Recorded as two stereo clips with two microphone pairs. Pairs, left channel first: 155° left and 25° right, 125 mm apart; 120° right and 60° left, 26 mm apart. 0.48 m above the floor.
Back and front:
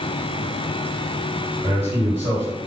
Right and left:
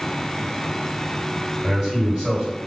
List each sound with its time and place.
1.6 s a man speaking: 35° right, 2.0 m